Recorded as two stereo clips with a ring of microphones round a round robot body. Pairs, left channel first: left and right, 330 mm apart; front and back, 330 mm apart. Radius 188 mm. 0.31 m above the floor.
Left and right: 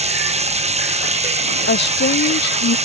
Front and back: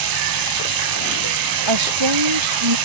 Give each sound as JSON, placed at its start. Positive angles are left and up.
{"t": 0.0, "sound": "running water", "azimuth_deg": -160}
{"t": 1.7, "sound": "a woman speaking", "azimuth_deg": 150}